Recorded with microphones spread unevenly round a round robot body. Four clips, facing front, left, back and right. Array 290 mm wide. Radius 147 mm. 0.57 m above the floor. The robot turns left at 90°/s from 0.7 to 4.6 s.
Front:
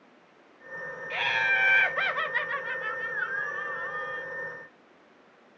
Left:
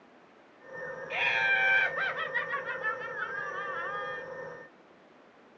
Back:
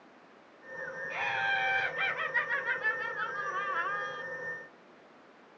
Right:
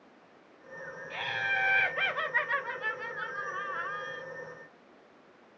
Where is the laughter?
55° left, 1.0 m; by 4.2 s 135° left, 1.0 m.